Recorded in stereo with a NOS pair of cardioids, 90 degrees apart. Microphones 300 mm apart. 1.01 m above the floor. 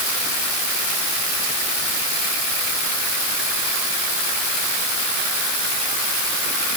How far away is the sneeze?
No sneeze in this recording.